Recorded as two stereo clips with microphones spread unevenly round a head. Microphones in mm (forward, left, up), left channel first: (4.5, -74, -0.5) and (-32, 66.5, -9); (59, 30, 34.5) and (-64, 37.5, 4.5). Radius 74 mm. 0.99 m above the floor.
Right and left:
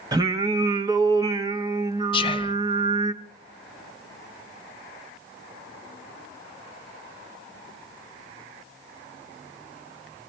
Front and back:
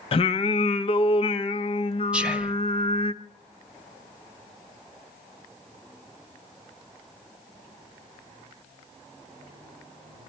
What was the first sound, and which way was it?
Singing, 45° left.